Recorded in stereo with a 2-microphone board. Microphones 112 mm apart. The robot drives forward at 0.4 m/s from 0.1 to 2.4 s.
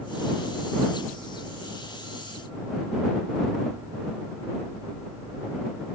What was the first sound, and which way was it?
Only background noise.